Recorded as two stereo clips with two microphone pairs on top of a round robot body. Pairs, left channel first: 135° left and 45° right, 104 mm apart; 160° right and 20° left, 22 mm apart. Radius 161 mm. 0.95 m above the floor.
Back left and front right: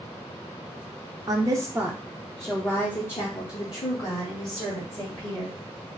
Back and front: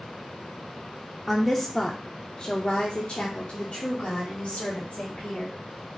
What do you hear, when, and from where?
1.3 s a woman speaking: 70° right, 0.8 m; by 5.5 s straight behind, 2 m